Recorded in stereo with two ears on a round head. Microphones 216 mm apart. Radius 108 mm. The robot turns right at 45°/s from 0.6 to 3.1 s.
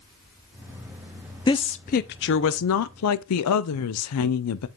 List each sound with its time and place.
1.5 s a woman speaking: 20° left, 0.5 m; by 4.7 s 95° left, 0.5 m